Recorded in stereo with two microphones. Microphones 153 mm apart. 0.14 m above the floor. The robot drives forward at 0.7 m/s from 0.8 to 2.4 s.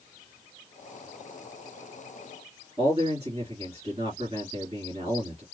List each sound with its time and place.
2.8 s a man speaking: 40° right (ahead or behind), 2.5 m